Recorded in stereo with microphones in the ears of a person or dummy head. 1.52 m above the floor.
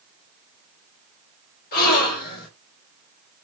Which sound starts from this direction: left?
A gasp, at 1.7 s.